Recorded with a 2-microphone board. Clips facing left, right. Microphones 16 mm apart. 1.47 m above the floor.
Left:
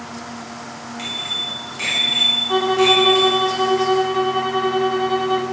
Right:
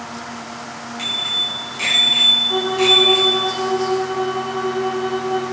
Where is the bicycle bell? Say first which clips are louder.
Right 4 dB; 10° right (ahead or behind), 9 m; by 3.5 s 5° right (ahead or behind), 7.5 m.